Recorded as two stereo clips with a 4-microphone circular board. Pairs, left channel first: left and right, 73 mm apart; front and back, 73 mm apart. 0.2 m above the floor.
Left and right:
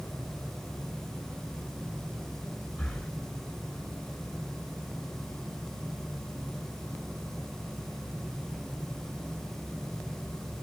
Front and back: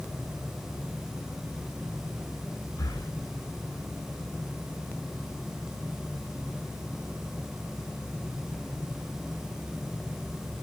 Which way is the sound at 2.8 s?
10° left.